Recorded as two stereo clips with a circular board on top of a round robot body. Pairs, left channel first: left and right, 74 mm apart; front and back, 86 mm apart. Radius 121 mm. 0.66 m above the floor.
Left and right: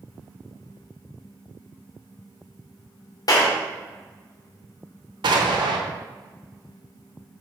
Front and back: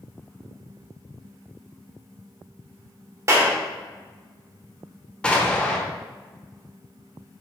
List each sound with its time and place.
3.3 s a clap: 125° left, 1.6 m
5.2 s an explosion: 80° right, 0.8 m